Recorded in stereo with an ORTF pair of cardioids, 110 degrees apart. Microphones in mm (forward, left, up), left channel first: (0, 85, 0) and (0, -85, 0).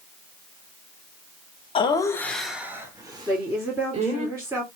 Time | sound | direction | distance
1.8 | laughter | 30° left | 1.2 m
3.3 | a woman speaking | 15° right | 1.9 m